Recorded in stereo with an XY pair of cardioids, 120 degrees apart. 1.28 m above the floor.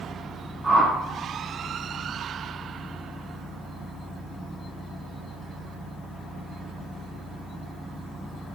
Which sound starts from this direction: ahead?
A whoosh, at 0.6 s.